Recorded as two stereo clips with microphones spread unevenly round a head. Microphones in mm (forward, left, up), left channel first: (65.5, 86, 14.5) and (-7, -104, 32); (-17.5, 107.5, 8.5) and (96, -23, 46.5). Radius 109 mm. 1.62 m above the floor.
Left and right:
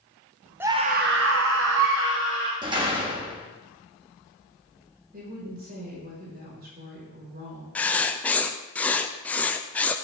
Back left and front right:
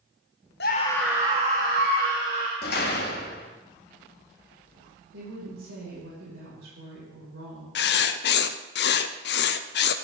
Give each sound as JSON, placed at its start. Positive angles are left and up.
{"t": 0.6, "sound": "a scream", "azimuth_deg": 175, "distance_m": 0.7}
{"t": 2.6, "sound": "a door slam", "azimuth_deg": 180, "distance_m": 1.7}
{"t": 5.1, "sound": "a woman speaking", "azimuth_deg": -70, "distance_m": 5.5}
{"t": 7.8, "sound": "writing", "azimuth_deg": 150, "distance_m": 0.6}